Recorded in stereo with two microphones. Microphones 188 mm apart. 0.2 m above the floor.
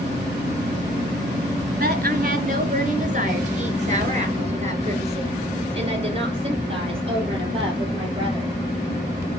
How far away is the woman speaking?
About 2.0 m.